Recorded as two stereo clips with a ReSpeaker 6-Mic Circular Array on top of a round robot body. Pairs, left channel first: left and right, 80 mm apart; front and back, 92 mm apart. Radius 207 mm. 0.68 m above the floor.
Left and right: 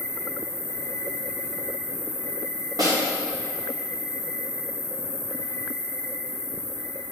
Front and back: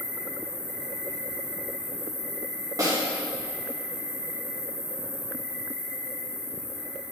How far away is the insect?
About 1.3 m.